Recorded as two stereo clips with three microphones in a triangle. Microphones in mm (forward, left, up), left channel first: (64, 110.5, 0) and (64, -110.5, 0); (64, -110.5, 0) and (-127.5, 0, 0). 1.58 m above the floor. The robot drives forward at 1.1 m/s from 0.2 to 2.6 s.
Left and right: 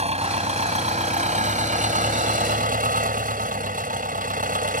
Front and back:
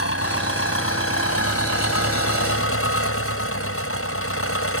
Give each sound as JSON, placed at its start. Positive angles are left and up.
{"t": 0.0, "sound": "an engine running", "azimuth_deg": -30}